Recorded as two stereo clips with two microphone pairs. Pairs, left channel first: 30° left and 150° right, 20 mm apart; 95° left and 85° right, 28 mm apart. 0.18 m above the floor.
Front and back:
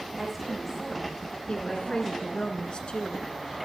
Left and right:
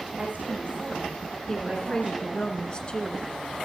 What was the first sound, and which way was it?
A woman speaking, 65° right.